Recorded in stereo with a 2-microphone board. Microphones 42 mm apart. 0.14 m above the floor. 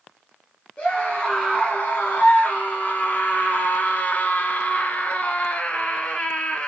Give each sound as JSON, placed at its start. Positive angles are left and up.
{"t": 0.8, "sound": "a scream", "side_deg": 30, "distance_m": 2.5}